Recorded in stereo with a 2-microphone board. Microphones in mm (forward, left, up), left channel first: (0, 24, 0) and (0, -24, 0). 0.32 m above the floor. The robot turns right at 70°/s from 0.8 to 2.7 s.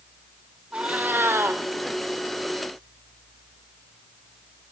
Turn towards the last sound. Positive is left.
turn(degrees=-20)